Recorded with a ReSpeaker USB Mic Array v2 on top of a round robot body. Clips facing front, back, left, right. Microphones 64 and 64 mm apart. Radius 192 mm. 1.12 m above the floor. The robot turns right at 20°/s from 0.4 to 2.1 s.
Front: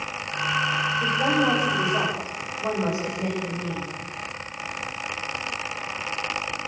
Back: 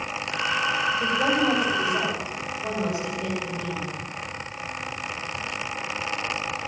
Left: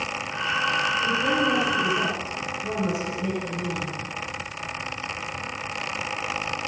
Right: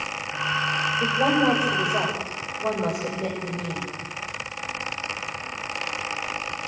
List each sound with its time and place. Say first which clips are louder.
1.0 s a woman speaking: front 1 dB, right 5 dB; 95° right, 7 m; by 4.0 s 75° right, 7 m